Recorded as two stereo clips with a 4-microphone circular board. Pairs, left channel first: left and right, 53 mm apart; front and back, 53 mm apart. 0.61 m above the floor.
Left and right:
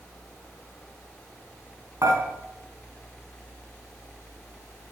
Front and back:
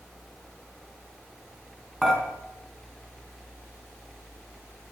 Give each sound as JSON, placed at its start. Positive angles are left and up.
{"t": 2.0, "sound": "dishes clattering", "azimuth_deg": -100, "distance_m": 3.5}